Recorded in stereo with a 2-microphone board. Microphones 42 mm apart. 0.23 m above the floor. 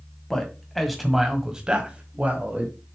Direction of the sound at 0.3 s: 10° left (ahead or behind).